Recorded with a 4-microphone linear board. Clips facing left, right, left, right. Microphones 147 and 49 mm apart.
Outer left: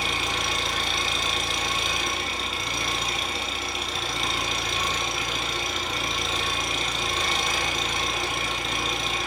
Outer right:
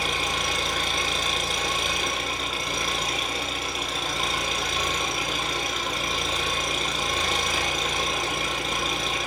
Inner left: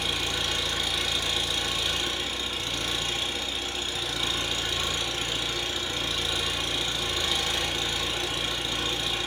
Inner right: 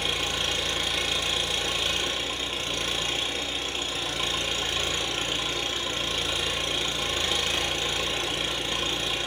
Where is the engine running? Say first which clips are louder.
Outer right 1 dB, inner right 1 dB; 50° right (ahead or behind), 1.2 m.